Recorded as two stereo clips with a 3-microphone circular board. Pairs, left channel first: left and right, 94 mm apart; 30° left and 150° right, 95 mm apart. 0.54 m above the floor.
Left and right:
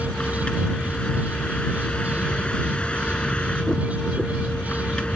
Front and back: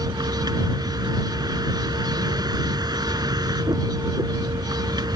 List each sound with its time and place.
0.0 s a vehicle: 170° left